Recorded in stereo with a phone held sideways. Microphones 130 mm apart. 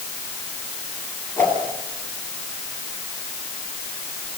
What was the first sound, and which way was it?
A whoosh, 15° left (ahead or behind).